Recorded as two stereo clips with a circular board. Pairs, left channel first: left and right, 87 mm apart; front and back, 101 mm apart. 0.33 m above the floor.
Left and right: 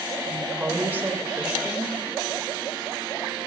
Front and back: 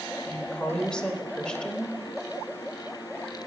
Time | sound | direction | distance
0.3 | a woman speaking | 70° right | 1.4 m